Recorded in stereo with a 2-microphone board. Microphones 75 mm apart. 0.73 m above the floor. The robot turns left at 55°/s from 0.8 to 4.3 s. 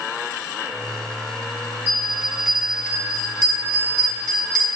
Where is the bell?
150° right, 4 m; by 4.7 s 75° left, 4 m.